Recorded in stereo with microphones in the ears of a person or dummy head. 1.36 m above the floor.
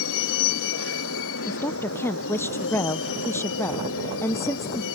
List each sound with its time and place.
0.0 s a vehicle: 70° left (ahead or behind)
1.5 s a woman speaking: 15° left (ahead or behind)